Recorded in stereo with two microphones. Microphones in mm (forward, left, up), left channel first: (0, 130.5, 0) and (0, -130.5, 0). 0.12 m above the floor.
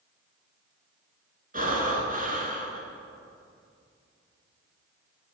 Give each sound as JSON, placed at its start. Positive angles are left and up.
{"t": 1.5, "sound": "breathing", "side_deg": -30, "distance_m": 1.2}